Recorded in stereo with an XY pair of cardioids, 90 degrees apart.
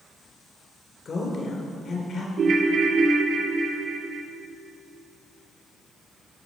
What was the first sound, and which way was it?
A woman speaking, 55° left.